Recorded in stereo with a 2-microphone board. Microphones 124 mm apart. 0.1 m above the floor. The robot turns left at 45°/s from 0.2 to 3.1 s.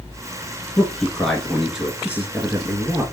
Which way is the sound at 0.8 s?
10° left (ahead or behind).